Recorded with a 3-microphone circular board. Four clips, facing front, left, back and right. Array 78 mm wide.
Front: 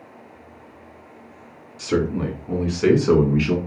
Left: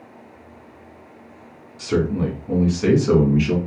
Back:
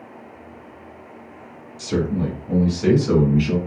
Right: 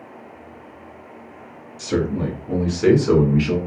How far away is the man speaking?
About 1.8 m.